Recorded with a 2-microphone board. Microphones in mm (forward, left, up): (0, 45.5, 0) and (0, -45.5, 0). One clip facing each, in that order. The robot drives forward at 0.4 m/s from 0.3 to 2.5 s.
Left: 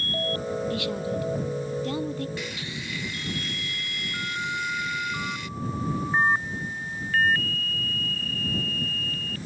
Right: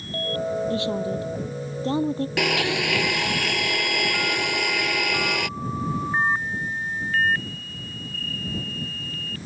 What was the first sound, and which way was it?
A woman speaking, 30° right (ahead or behind).